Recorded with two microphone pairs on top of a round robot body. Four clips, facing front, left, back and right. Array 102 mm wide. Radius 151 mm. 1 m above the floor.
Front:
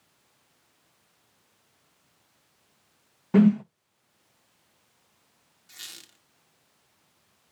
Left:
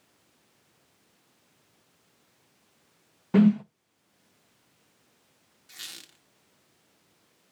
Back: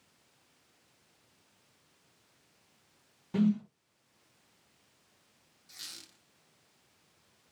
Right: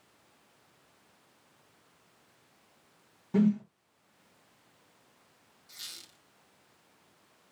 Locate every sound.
3.3 s a whoosh: 40° left, 0.5 m
5.7 s a squeak: 70° left, 1.3 m